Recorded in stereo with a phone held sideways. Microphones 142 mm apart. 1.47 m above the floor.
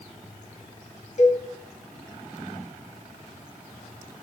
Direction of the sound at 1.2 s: 60° left (ahead or behind).